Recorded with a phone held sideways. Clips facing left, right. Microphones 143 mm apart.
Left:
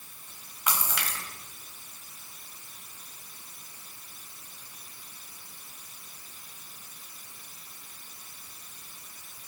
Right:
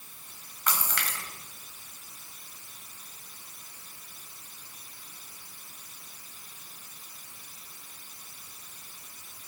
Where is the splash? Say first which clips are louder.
Left 1 dB; 10° left (ahead or behind), 2.5 m.